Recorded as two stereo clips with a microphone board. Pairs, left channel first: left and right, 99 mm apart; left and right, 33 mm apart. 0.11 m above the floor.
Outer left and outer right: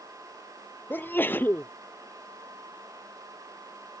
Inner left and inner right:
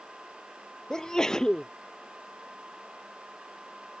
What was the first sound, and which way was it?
A sneeze, 20° left (ahead or behind).